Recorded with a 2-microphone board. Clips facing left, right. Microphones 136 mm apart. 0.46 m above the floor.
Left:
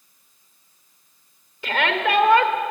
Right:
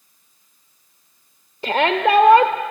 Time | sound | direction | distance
1.6 | a shout | 35° right (ahead or behind) | 1.2 m